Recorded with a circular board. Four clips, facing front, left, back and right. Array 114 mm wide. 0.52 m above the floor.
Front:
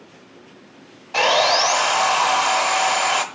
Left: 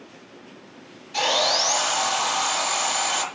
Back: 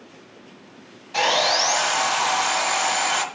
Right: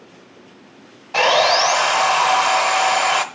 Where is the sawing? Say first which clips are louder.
Right 8 dB, front 4 dB; 65° right, 0.7 m.